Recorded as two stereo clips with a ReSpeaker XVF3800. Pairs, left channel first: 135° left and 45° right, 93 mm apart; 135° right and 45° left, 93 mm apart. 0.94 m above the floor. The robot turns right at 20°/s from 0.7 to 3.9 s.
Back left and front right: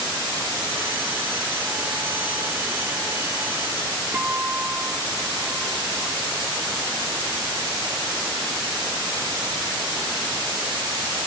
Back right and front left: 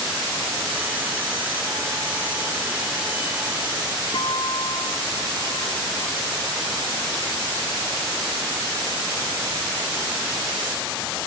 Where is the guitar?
120° right.